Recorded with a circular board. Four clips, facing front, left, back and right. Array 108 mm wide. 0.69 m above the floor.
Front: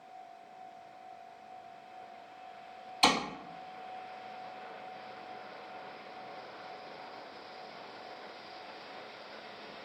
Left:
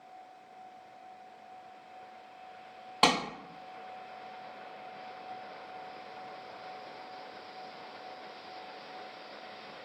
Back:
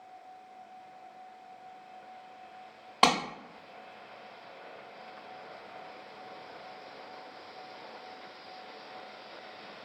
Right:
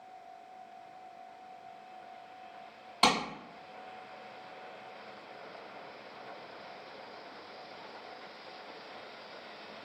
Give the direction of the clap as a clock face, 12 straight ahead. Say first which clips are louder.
Left 1 dB, back 3 dB; 7 o'clock.